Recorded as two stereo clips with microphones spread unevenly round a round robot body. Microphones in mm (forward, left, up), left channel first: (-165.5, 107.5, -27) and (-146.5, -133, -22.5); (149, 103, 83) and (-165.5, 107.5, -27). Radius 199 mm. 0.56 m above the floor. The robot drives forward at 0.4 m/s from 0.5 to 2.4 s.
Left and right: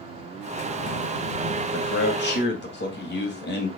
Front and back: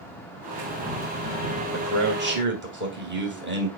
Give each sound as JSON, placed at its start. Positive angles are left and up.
{"t": 1.7, "sound": "a man speaking", "azimuth_deg": 130, "distance_m": 2.5}